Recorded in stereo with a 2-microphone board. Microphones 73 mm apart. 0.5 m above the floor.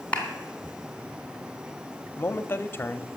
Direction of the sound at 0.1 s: 15° left (ahead or behind).